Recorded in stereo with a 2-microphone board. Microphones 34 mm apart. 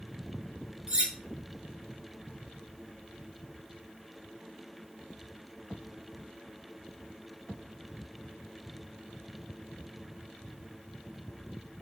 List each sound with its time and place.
0.9 s cutlery clinking: 25° right (ahead or behind), 1.2 m